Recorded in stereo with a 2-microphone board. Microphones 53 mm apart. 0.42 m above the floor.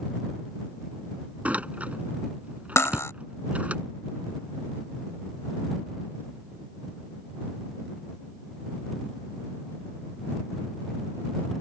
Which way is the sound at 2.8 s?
65° left (ahead or behind).